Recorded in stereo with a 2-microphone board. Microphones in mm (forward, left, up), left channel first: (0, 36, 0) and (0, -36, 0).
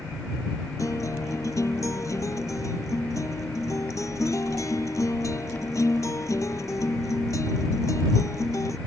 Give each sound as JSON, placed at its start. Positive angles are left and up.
{"t": 0.8, "sound": "a guitar", "side_deg": 45}